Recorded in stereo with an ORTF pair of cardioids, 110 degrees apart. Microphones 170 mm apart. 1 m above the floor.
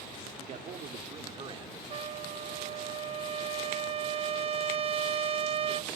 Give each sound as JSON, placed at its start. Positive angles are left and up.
{"t": 0.4, "sound": "a man speaking", "azimuth_deg": -50, "distance_m": 1.8}
{"t": 1.9, "sound": "a trumpet", "azimuth_deg": -35, "distance_m": 0.6}